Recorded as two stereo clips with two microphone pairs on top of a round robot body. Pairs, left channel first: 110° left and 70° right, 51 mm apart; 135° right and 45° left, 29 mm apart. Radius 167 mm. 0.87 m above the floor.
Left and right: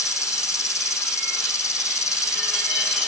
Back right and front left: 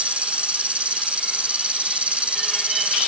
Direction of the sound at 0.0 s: 95° left.